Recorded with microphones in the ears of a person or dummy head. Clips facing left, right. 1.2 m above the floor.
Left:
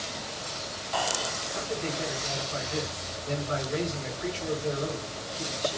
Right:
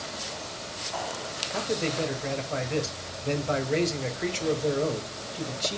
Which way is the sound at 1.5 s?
75° right (ahead or behind).